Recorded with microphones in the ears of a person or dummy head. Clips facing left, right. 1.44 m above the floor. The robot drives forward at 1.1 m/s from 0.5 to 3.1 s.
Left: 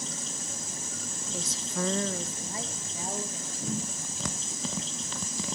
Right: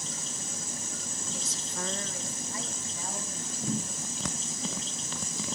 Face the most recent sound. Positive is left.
turn(degrees=15)  # may be behind; listen again after turning